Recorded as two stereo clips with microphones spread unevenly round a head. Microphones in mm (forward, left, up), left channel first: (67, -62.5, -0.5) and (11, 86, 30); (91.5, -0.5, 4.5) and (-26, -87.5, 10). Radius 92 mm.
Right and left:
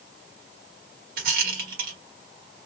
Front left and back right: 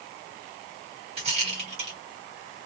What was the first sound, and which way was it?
A rattle, 155° left.